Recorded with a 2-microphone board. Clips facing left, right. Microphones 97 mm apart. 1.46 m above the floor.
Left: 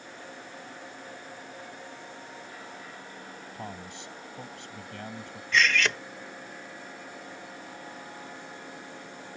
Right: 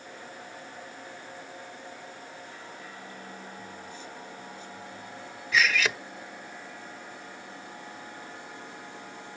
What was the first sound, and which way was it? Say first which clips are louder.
A man speaking: left 2 dB; 85° left.